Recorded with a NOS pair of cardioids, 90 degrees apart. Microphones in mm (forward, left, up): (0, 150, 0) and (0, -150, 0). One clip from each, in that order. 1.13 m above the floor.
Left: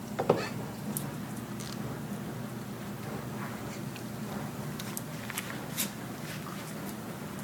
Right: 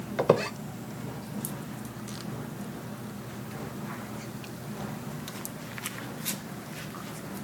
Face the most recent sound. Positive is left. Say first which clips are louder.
# right 5 dB
turn(degrees=-20)